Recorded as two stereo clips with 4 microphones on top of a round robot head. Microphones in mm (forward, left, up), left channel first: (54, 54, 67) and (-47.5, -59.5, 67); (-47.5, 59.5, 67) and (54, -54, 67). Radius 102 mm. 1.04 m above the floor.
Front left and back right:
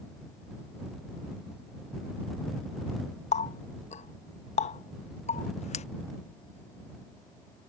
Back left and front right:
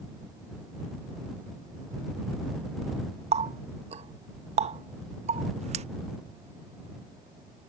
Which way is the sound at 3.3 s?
Straight ahead.